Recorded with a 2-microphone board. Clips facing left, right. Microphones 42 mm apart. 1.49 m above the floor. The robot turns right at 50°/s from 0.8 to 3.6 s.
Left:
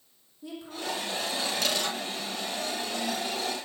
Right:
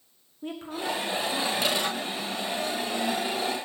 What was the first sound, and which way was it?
A woman speaking, 135° right.